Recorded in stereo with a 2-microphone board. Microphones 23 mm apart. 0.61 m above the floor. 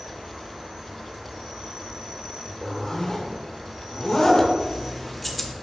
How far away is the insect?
About 1.3 m.